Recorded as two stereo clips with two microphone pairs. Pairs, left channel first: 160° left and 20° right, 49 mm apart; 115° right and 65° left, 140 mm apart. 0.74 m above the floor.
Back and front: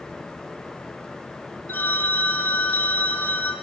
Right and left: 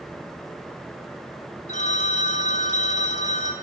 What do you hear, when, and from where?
1.7 s a phone ringing: 150° right, 4 m